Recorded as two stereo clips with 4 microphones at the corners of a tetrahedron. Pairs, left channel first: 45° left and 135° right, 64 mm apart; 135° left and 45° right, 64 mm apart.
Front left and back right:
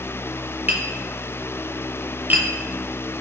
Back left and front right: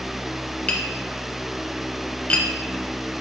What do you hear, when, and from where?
0.7 s tapping: 175° right, 0.5 m